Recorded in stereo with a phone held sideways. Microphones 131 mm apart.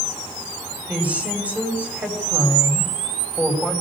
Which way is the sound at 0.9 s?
10° right (ahead or behind).